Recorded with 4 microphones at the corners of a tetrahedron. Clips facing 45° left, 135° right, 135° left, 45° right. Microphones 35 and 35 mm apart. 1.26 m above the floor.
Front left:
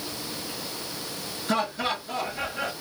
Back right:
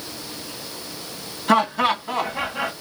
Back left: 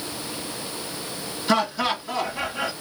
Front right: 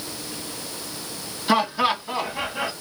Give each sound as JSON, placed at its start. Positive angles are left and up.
{"t": 1.5, "sound": "laughter", "azimuth_deg": -120, "distance_m": 1.8}